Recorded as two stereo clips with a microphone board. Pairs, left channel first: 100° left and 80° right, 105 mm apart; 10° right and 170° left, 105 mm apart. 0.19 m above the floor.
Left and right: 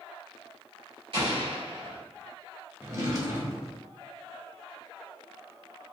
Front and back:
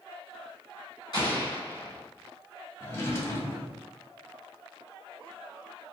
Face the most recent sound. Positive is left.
turn(degrees=-60)